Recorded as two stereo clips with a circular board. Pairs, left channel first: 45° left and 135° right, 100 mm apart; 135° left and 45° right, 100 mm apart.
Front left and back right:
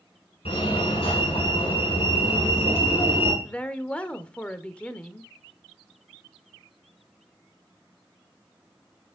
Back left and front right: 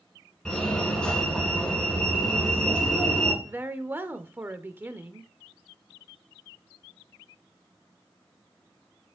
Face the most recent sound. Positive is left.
turn(degrees=-15)